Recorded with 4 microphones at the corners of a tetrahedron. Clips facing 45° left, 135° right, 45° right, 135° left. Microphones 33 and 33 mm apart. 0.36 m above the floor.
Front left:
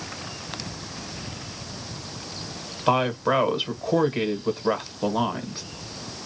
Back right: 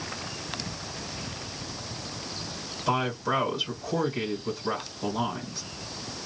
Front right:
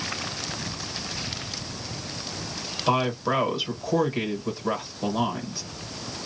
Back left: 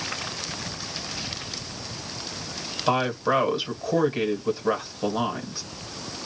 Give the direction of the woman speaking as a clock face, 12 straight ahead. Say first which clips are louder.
Front left 5 dB, back left 1 dB; 10 o'clock.